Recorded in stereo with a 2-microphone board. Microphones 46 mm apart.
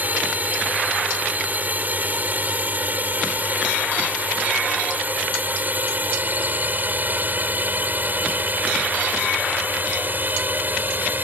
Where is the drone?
35° right (ahead or behind); by 11.2 s 40° right (ahead or behind).